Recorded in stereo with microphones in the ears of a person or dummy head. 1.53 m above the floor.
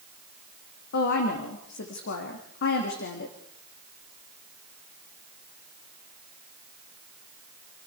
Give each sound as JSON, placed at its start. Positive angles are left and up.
{"t": 0.9, "sound": "a woman speaking", "side_deg": 55, "distance_m": 2.5}